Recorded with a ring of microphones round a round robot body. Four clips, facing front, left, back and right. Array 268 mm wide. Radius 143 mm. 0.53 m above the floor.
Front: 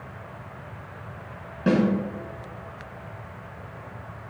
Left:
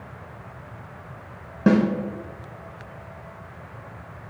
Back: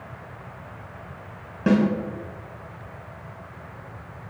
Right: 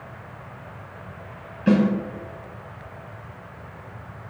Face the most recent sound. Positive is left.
turn(degrees=95)